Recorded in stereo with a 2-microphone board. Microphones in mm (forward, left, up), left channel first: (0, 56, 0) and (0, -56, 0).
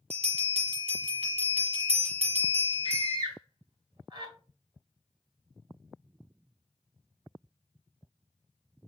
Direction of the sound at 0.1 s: 80° right.